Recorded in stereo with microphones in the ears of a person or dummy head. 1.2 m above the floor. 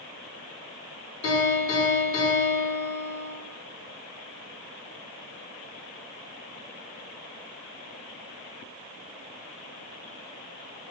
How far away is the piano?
About 2 m.